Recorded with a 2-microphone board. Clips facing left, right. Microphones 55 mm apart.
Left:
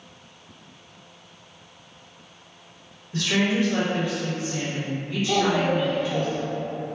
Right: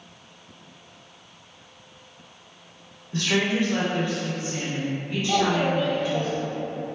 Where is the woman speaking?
40° right (ahead or behind), 1.8 m.